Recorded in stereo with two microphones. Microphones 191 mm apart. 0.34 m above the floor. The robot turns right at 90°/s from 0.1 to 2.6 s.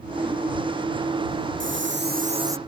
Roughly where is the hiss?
Right.